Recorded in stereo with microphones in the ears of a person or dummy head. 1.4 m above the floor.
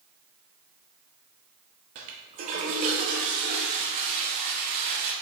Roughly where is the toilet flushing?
Right.